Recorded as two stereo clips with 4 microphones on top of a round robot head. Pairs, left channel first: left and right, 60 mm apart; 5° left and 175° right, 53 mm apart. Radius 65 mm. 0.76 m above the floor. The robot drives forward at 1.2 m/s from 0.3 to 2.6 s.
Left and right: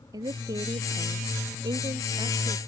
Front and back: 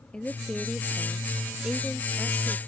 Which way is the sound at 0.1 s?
70° right.